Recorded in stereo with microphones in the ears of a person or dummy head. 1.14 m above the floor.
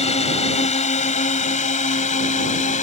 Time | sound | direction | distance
0.0 | a drone | 30° left (ahead or behind) | ?